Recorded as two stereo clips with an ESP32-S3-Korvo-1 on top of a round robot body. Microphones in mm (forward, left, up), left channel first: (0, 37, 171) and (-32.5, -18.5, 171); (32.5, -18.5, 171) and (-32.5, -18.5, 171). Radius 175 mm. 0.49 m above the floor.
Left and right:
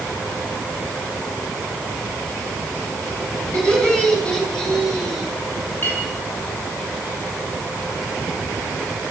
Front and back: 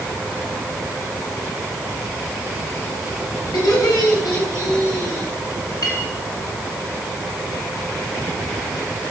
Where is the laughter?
20° right, 7 m; by 5.3 s 25° right, 6 m.